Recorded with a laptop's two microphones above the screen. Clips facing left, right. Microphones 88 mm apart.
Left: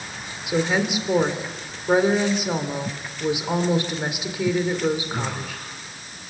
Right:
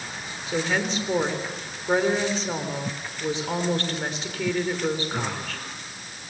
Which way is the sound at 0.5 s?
15° left (ahead or behind).